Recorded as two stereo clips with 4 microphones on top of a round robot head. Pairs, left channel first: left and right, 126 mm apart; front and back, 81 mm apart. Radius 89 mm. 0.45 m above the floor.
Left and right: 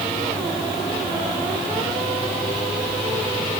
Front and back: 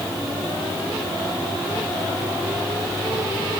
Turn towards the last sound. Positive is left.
No sound to turn to.